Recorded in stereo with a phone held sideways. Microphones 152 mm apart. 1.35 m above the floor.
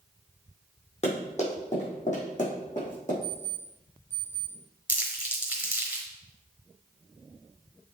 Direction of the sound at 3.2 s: 40° left (ahead or behind).